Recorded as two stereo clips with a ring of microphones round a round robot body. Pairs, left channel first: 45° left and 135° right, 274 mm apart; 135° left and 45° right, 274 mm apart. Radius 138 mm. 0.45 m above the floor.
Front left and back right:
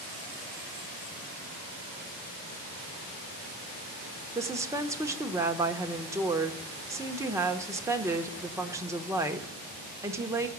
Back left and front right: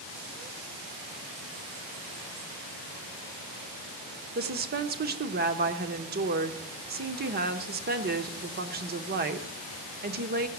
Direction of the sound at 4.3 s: 65° right.